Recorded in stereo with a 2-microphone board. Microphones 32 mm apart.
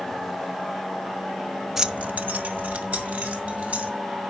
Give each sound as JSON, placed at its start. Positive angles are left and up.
{"t": 1.8, "sound": "keys jangling", "side_deg": -10, "distance_m": 0.5}